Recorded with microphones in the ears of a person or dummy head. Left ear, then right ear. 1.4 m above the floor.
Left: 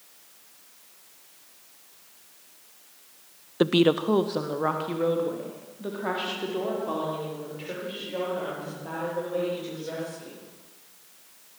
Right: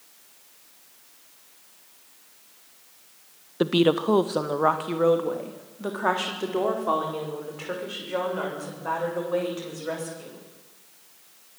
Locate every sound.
3.6 s a woman speaking: 15° left (ahead or behind), 0.8 m; by 10.4 s 45° right (ahead or behind), 9 m